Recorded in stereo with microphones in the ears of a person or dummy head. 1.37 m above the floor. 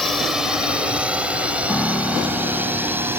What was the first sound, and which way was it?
A drone, centre (ahead or behind).